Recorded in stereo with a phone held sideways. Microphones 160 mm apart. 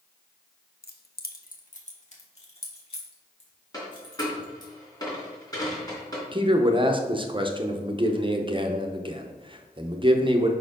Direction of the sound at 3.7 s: 25° left (ahead or behind).